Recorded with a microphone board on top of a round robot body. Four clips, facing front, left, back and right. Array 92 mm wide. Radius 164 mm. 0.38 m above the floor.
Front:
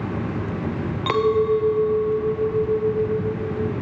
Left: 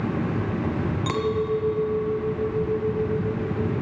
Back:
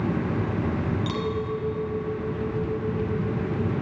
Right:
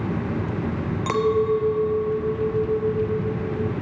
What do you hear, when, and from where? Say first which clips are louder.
1.1 s a clink: right 6 dB, front 10 dB; 25° right, 1.2 m